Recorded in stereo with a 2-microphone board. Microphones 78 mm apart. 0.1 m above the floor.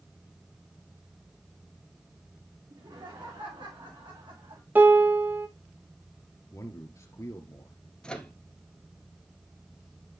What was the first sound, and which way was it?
Laughter, 80° right.